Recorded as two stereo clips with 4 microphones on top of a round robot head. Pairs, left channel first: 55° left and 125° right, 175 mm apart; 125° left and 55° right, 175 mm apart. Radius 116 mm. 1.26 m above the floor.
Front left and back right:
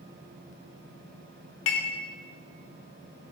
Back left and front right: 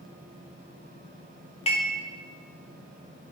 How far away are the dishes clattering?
About 0.8 m.